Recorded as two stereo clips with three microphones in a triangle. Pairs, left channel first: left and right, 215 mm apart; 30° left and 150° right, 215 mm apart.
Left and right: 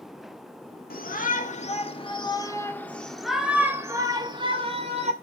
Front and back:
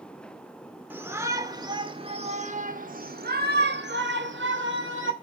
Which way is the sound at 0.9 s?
130° left.